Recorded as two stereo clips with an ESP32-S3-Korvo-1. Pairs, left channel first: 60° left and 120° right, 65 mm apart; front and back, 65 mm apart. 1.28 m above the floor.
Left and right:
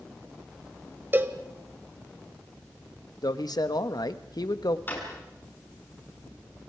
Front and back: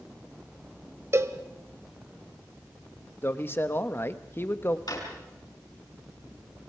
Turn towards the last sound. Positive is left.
turn(degrees=0)